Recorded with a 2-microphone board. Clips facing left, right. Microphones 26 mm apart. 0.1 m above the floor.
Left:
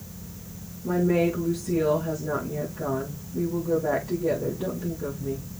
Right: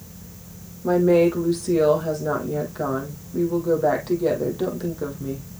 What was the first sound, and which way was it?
A woman speaking, 70° right (ahead or behind).